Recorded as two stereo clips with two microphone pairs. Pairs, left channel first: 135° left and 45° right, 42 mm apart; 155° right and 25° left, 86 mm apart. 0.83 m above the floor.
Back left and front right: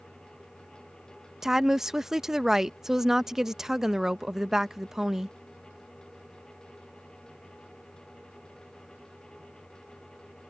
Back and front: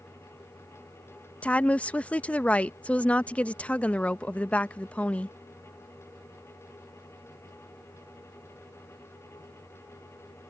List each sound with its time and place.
1.4 s a woman speaking: 100° right